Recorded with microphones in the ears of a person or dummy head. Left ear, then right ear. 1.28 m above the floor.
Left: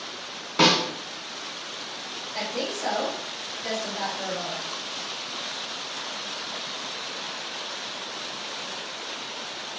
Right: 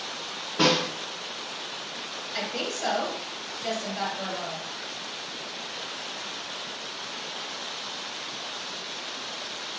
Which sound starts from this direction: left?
A snare drum, at 0.6 s.